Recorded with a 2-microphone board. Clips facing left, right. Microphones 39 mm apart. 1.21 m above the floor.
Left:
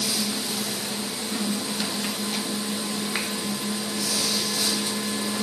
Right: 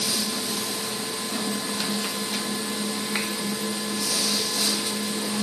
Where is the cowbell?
No cowbell in this recording.